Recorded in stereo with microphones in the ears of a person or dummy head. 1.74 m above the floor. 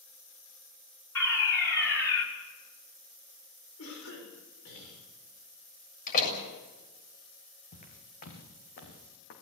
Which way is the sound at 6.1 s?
45° left (ahead or behind).